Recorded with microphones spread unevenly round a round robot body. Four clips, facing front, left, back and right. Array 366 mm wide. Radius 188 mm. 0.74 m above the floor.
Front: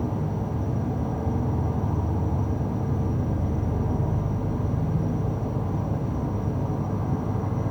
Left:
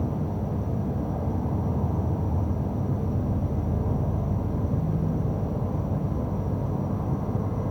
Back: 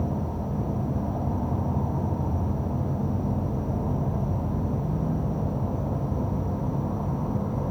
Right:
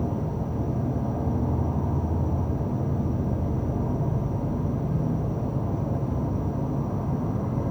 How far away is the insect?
About 2.5 m.